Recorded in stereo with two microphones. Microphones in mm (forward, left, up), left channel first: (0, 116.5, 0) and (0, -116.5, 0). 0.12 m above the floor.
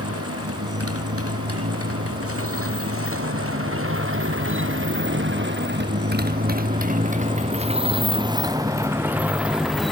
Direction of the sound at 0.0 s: 85° right.